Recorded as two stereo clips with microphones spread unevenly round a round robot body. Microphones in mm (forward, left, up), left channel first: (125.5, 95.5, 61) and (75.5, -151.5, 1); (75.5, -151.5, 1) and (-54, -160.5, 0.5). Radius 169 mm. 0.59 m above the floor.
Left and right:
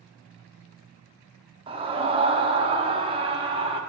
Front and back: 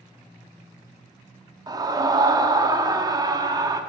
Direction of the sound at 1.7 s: 135° right.